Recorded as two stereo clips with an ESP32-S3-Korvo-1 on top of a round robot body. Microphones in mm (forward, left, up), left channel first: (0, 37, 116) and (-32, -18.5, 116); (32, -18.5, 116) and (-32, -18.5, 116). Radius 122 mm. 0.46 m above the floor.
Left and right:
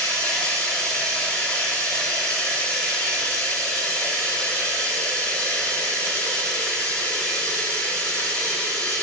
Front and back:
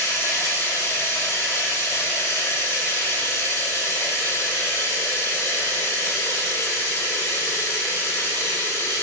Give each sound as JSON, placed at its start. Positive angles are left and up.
{"t": 0.0, "sound": "running water", "azimuth_deg": 5, "distance_m": 1.2}